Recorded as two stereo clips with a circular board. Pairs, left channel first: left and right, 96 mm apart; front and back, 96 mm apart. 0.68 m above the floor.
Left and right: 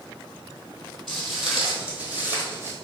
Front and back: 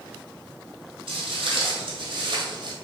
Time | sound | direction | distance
1.1 | footsteps | 175° left | 1.5 m